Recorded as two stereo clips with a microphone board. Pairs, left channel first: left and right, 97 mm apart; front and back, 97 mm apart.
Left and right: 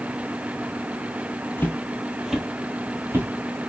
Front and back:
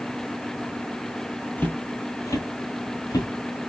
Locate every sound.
1.6 s footsteps: 50° left, 0.8 m; by 3.6 s 40° right, 1.3 m